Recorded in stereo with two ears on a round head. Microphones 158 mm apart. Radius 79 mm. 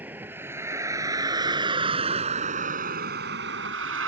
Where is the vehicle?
10° right (ahead or behind); by 4.1 s 90° right.